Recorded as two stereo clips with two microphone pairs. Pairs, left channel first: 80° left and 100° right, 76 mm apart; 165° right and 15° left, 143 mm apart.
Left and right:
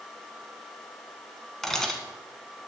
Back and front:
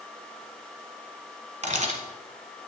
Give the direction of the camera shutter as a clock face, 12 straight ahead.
12 o'clock.